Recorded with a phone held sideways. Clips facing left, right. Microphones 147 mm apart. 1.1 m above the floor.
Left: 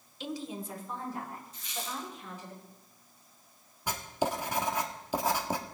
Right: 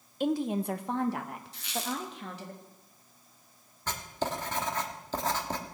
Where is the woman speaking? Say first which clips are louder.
Right 9 dB; 55° right (ahead or behind), 0.6 m; by 2.5 s 75° right (ahead or behind), 1.9 m.